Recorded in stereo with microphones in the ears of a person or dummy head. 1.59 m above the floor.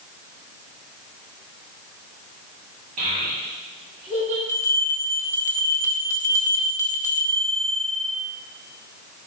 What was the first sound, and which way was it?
A child speaking, 40° right (ahead or behind).